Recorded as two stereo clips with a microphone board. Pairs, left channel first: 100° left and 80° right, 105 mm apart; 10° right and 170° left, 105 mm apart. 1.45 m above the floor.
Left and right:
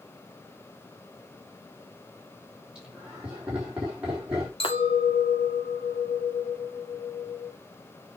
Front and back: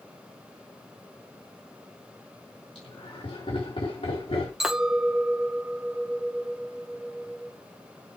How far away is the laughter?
About 3.5 m.